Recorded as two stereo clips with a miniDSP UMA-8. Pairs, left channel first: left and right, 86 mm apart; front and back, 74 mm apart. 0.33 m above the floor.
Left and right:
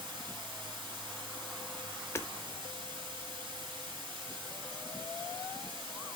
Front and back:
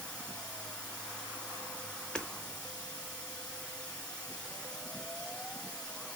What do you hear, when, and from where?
0.0 s running water: 80° right, 2.5 m
2.1 s hammering: 65° left, 0.5 m